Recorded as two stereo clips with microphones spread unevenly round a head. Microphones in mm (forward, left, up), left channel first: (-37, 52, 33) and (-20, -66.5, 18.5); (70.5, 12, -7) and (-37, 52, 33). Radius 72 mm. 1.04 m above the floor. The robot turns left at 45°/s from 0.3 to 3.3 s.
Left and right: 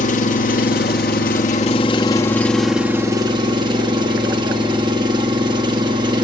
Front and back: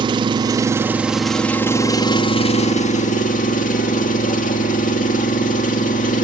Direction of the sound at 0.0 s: 115° left.